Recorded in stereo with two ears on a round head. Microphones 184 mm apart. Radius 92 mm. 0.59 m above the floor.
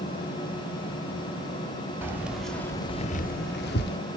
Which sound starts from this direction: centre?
Keys jangling, at 2.0 s.